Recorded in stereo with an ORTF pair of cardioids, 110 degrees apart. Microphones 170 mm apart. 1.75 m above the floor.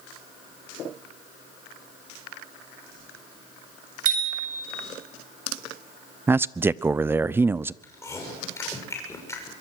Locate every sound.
4.0 s a bicycle bell: 55° right, 7.5 m
6.3 s a man speaking: 15° right, 0.5 m
7.8 s chewing: 20° left, 6.5 m